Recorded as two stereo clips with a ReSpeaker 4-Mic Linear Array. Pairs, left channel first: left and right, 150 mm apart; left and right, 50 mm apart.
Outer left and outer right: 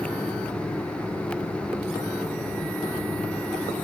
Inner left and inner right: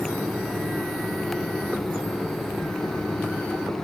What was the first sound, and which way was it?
Only background noise.